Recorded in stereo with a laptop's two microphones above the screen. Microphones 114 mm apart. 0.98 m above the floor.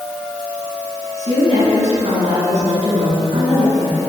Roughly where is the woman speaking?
Right.